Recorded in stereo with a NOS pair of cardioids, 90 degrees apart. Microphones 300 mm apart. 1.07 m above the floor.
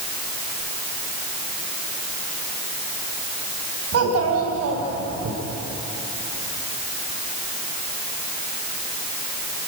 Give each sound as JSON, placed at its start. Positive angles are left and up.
{"t": 3.9, "sound": "a child speaking", "azimuth_deg": -55, "distance_m": 6.0}